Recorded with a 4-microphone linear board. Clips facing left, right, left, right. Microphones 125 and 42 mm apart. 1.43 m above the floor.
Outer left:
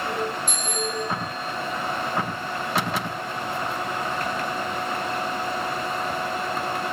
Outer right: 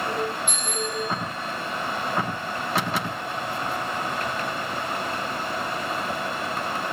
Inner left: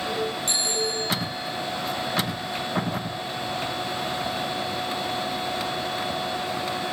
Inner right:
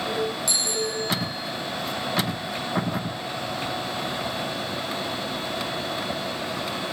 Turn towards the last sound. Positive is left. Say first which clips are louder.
# outer left 1 dB, even
turn(degrees=40)  # may be behind; listen again after turning